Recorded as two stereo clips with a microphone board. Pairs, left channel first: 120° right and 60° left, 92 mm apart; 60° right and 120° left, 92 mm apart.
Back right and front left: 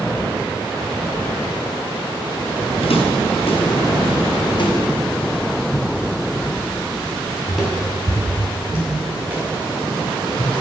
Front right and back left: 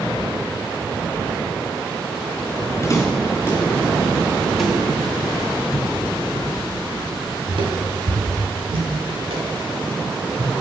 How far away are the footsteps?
About 3.5 m.